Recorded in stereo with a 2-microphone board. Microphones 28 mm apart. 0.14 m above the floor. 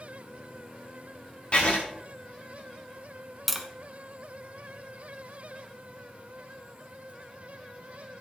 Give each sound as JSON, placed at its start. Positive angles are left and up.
{"t": 1.5, "sound": "writing", "side_deg": 40, "distance_m": 5.0}
{"t": 3.5, "sound": "tapping", "side_deg": 0, "distance_m": 1.1}